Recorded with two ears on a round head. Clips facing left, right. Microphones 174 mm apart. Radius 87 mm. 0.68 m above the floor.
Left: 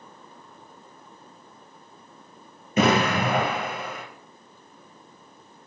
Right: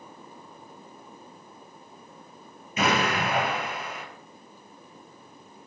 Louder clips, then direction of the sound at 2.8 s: Left 5 dB; 45° left (ahead or behind).